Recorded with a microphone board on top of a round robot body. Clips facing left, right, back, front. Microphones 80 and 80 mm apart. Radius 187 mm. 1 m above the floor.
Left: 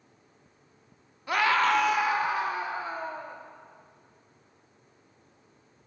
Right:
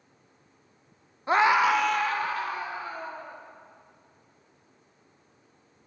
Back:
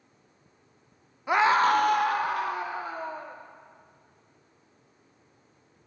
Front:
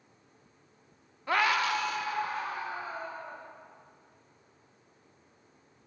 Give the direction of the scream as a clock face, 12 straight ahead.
4 o'clock.